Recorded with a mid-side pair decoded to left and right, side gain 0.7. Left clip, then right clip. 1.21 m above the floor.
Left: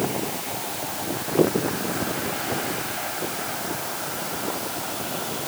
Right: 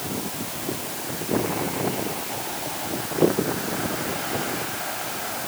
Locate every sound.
Only background noise.